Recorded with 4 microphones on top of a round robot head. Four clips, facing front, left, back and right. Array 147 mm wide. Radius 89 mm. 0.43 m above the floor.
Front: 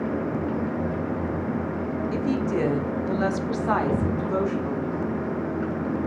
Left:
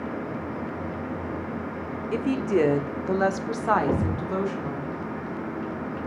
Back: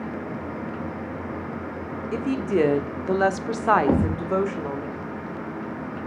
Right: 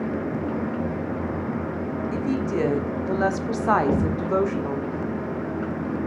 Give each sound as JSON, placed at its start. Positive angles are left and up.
{"t": 2.1, "sound": "a woman speaking", "azimuth_deg": 125, "distance_m": 1.4}
{"t": 3.9, "sound": "a thud", "azimuth_deg": -175, "distance_m": 3.0}